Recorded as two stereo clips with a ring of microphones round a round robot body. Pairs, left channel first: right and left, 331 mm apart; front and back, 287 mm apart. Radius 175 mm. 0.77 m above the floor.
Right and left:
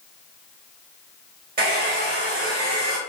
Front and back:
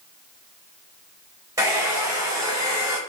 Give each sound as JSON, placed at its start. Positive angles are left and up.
{"t": 1.6, "sound": "a hair dryer", "azimuth_deg": 115, "distance_m": 0.5}